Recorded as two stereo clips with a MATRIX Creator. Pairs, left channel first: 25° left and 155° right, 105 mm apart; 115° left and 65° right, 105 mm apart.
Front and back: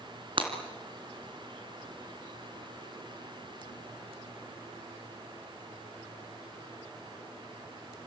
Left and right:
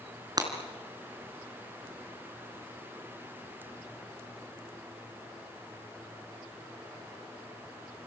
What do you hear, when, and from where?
0.4 s breaking glass: 120° right, 3.5 m